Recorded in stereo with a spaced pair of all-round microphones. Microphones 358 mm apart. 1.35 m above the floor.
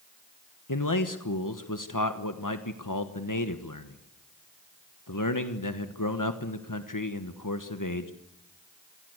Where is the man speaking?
60° left (ahead or behind), 1.3 m.